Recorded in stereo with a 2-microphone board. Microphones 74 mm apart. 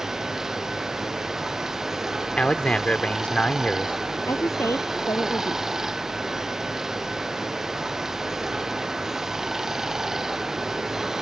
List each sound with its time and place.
0.0 s running water: 5° right (ahead or behind)
2.4 s a man speaking: 15° left (ahead or behind)
4.3 s a woman speaking: 45° left (ahead or behind)